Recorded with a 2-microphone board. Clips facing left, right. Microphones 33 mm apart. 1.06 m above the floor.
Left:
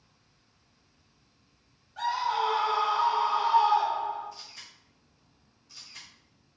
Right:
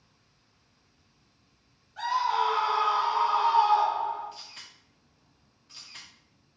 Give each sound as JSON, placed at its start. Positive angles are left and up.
{"t": 2.0, "sound": "a scream", "side_deg": 10, "distance_m": 0.7}
{"t": 4.3, "sound": "a camera shutter", "side_deg": -45, "distance_m": 0.9}